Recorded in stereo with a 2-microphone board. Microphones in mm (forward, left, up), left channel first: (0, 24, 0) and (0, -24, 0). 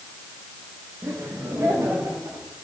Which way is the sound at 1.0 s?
70° right (ahead or behind).